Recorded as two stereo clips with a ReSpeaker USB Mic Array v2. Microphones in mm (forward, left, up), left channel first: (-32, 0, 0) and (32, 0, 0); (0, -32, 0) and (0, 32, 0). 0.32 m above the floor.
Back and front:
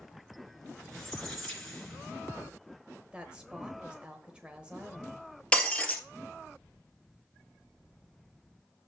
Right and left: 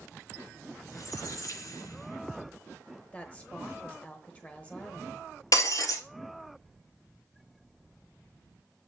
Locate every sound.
0.8 s a squeak: 100° right, 2.5 m
3.1 s a woman speaking: 55° right, 0.9 m
5.5 s breaking glass: 110° right, 1.6 m